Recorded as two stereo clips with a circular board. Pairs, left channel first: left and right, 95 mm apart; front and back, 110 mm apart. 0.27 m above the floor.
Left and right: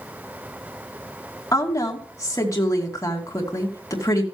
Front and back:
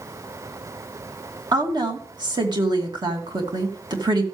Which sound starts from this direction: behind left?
A woman speaking, at 1.5 s.